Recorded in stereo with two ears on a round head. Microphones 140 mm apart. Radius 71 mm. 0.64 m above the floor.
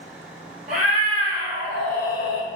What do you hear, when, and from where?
0.7 s a cat meowing: 50° right (ahead or behind), 1.2 m; by 2.5 s 45° left (ahead or behind), 0.8 m